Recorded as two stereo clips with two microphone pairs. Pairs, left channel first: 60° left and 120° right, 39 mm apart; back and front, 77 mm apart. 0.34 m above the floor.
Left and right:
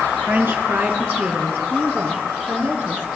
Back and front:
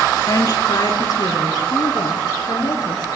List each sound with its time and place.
0.3 s a woman speaking: 140° right, 4 m